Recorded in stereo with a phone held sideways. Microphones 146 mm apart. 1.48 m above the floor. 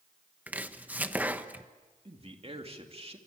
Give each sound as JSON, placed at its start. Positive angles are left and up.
{"t": 0.5, "sound": "chopping", "side_deg": -10, "distance_m": 1.1}
{"t": 2.0, "sound": "a man speaking", "side_deg": -40, "distance_m": 2.5}